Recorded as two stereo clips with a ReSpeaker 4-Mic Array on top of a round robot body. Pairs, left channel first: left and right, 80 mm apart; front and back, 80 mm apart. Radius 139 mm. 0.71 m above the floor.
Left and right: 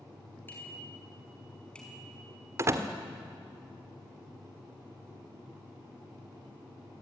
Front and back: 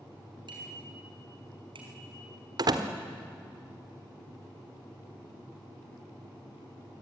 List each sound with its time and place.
0.5 s a bicycle bell: 155° left, 7 m; by 2.3 s 175° left, 5 m
2.6 s a door slam: 145° right, 1.6 m